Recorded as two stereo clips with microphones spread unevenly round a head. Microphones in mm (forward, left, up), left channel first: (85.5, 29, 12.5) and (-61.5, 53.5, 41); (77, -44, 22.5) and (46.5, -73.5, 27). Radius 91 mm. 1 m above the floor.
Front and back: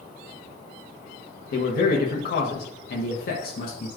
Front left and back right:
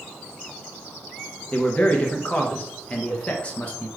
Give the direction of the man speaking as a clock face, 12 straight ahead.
12 o'clock.